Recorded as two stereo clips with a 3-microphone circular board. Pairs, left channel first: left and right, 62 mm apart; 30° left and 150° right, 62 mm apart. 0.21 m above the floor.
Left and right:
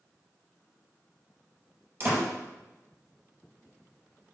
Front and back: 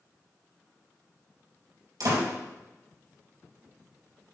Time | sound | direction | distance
2.0 | a door slam | 140° right | 4 m